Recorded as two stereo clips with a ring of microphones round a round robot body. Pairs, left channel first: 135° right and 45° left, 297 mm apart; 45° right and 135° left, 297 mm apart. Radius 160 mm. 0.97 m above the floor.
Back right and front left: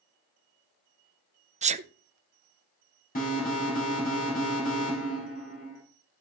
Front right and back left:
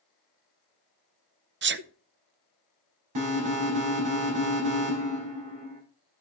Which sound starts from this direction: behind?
An alarm, at 3.1 s.